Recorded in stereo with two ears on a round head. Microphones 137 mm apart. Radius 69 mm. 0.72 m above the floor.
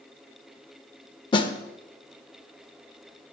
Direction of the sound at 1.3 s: 30° left (ahead or behind).